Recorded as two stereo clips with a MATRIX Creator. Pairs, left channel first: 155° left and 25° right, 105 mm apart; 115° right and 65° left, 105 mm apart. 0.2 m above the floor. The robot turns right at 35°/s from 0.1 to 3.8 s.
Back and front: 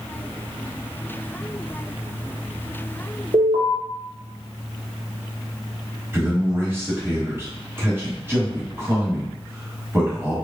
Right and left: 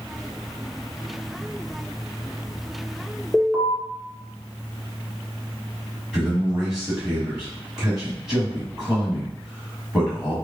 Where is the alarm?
25° right, 1.7 m; by 3.7 s 15° right, 1.7 m.